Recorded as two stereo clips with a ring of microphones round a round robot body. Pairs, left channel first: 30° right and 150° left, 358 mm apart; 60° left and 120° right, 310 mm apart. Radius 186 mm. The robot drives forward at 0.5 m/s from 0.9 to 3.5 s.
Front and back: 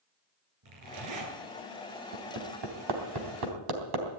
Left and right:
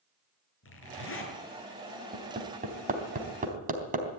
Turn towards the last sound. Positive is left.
turn(degrees=175)